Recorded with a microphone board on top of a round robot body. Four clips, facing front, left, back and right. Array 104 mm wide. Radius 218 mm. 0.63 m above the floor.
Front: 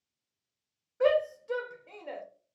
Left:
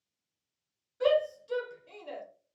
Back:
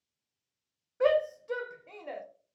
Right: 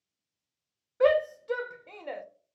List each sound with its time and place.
1.0 s a shout: 95° right, 0.7 m